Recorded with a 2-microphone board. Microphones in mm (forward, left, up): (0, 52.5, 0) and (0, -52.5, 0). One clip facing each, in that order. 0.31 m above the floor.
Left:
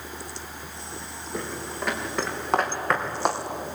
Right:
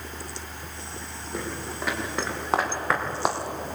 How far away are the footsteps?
About 5.5 m.